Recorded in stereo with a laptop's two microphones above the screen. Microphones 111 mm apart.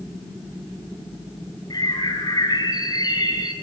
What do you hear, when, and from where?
1.7 s a bird: 40° left (ahead or behind), 3.5 m